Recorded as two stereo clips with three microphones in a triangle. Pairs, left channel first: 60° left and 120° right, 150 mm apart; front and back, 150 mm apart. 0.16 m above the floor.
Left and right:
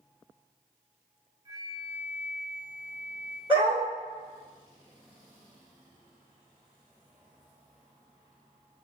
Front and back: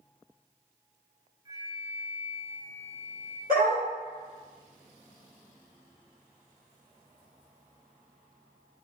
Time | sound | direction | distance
1.4 | a flute | 150° right | 1.0 m
3.5 | a dog barking | 175° right | 2 m